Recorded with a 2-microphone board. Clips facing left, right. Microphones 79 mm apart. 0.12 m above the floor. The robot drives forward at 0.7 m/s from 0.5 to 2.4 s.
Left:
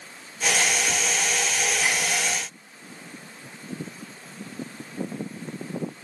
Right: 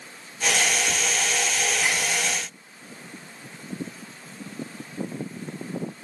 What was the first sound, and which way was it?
Only background noise.